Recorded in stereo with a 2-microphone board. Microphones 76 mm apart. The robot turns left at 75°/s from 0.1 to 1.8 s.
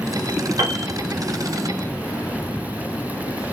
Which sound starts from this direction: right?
A piano, at 0.6 s.